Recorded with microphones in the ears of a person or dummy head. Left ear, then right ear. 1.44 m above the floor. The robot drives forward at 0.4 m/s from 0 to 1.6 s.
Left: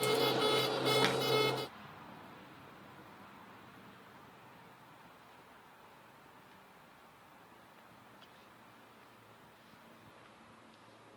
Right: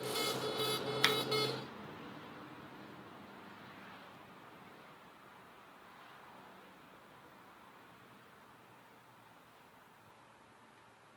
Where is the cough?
I don't hear a cough.